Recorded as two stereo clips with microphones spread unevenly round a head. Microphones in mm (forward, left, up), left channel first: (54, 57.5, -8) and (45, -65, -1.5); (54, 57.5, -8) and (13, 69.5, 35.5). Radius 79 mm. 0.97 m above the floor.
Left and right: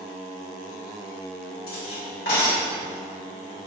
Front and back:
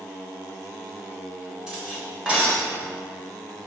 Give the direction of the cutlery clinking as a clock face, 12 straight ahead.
9 o'clock.